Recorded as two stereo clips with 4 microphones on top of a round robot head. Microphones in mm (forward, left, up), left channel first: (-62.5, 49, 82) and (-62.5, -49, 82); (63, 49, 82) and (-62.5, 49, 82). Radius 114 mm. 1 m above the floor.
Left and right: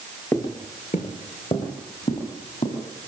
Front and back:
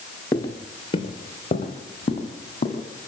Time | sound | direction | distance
0.3 | footsteps | 35° left | 1.0 m